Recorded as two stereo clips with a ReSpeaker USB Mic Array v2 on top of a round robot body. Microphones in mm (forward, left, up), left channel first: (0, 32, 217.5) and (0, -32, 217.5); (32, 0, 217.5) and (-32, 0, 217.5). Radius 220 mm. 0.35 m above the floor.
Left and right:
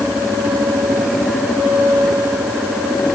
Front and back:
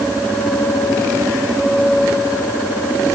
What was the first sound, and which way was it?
Only background noise.